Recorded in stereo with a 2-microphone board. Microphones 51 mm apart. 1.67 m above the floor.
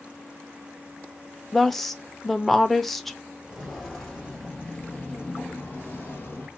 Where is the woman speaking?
5° left (ahead or behind), 0.8 m.